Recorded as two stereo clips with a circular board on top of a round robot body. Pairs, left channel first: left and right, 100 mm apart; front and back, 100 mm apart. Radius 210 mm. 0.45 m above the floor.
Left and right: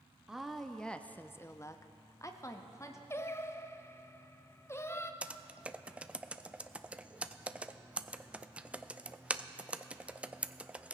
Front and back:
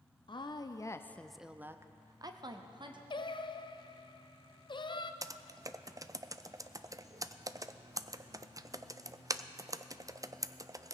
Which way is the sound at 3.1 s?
30° left.